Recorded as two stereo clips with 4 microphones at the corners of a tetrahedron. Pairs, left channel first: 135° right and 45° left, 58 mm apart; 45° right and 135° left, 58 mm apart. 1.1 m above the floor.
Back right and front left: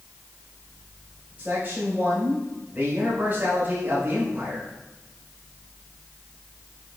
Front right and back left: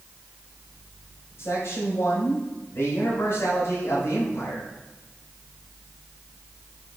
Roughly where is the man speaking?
Ahead.